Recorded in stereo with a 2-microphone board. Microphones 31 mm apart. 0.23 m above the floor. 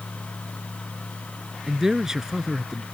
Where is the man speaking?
15° right (ahead or behind).